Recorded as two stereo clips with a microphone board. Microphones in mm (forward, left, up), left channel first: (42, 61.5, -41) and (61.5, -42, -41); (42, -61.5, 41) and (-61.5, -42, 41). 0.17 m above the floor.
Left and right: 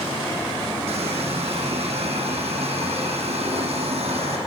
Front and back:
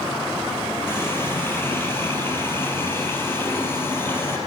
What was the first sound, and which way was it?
A running tap, 80° right.